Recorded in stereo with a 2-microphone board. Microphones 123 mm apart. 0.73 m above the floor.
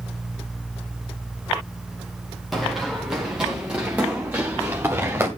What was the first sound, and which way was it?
Running footsteps, centre (ahead or behind).